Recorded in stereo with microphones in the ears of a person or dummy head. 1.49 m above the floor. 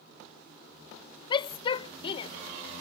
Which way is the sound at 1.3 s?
30° left (ahead or behind).